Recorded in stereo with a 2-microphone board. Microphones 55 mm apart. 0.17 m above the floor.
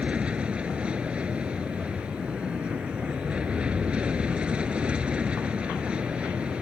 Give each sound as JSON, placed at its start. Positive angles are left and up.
{"t": 0.0, "sound": "an aircraft", "side_deg": -20}